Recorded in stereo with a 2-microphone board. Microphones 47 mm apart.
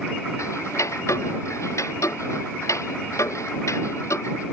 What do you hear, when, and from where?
0.4 s ticking: 90° left